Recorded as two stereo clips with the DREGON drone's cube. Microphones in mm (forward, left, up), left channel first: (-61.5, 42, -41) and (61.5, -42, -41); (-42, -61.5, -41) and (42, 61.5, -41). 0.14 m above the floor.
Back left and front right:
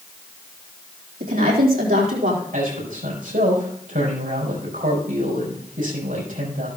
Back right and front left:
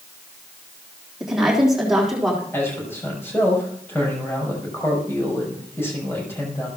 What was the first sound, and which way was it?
A woman speaking, 30° right.